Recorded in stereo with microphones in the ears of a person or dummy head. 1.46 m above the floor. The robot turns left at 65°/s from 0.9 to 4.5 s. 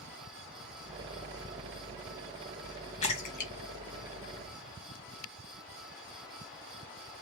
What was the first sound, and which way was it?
A splash, 30° left (ahead or behind).